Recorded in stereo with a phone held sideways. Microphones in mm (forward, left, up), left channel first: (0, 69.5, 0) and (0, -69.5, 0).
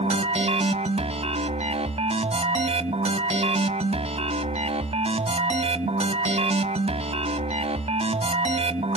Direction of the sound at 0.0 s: 50° right (ahead or behind).